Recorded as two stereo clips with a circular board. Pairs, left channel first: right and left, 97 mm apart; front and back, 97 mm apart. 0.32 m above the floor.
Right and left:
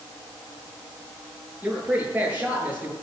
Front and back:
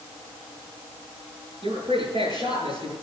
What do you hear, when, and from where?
1.6 s a man speaking: 160° left, 7 m